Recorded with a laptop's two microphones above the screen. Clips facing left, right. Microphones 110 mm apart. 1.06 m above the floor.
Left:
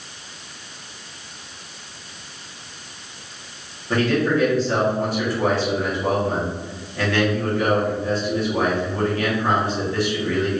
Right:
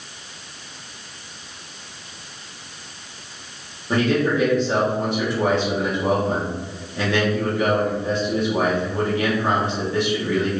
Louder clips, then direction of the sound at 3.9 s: Even; 20° right (ahead or behind).